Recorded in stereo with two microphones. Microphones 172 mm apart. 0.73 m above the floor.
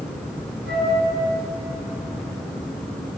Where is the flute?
75° right (ahead or behind), 8.5 m.